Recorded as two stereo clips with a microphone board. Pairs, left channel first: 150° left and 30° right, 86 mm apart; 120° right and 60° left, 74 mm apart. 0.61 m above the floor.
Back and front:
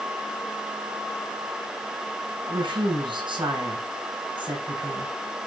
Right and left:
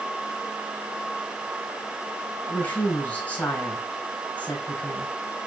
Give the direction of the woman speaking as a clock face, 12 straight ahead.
2 o'clock.